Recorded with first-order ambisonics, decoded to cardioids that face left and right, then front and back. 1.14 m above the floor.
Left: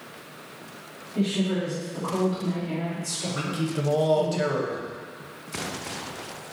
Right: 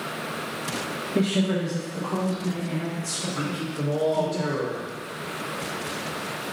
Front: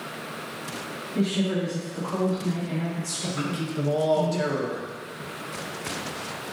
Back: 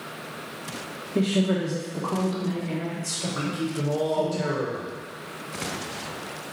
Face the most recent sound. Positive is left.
turn(degrees=80)